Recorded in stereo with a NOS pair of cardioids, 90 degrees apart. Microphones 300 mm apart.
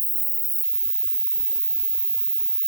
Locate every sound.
0.0 s an insect: 20° right, 0.8 m